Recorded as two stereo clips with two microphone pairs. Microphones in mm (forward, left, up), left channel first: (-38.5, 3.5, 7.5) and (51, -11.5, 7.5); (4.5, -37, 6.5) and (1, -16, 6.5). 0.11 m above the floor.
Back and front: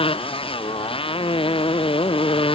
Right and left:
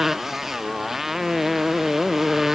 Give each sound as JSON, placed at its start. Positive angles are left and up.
{"t": 0.0, "sound": "a motorcycle", "azimuth_deg": 170}